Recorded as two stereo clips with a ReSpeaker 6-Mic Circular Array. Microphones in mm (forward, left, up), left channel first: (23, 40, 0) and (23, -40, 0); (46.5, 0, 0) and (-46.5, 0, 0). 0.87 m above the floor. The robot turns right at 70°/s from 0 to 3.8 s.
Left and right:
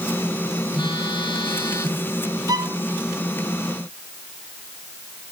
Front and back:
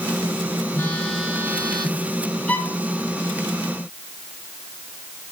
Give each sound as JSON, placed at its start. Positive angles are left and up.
{"t": 0.7, "sound": "a phone buzzing", "azimuth_deg": 60, "distance_m": 4.0}
{"t": 2.5, "sound": "a violin", "azimuth_deg": -70, "distance_m": 0.8}